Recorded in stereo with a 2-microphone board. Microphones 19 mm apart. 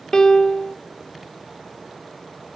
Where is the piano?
35° left (ahead or behind), 0.8 m.